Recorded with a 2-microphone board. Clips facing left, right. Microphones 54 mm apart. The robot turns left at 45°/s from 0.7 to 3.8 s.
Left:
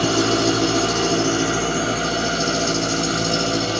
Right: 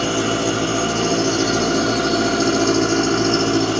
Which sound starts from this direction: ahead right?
An engine running, at 0.0 s.